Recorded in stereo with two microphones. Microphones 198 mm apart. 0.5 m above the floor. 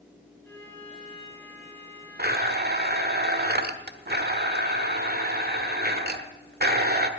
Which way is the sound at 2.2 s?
55° right (ahead or behind).